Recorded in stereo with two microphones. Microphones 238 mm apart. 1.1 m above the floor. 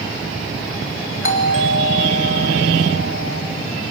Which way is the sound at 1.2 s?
55° left (ahead or behind).